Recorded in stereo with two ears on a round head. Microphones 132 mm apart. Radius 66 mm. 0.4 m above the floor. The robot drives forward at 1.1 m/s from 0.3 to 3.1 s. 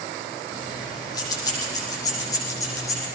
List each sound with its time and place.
0.5 s keys jangling: 30° left (ahead or behind), 9 m; by 3.0 s 20° left (ahead or behind), 11.5 m